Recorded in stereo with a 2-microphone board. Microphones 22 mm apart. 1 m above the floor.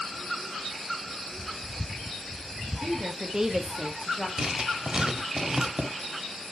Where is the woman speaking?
25° right (ahead or behind), 1.1 m; by 4.3 s centre (ahead or behind), 1.4 m.